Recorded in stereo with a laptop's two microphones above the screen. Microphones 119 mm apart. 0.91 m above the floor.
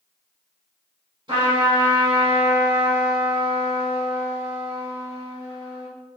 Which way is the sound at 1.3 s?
40° right (ahead or behind).